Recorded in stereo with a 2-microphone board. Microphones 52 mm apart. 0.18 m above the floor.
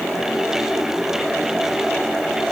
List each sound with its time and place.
Only background noise.